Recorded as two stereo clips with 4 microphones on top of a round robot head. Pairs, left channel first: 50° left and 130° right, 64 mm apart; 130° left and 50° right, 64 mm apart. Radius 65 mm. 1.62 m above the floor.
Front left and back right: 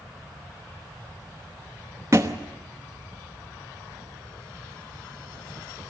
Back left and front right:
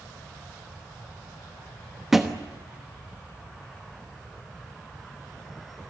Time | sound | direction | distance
2.1 | a thud | 135° right | 1.0 m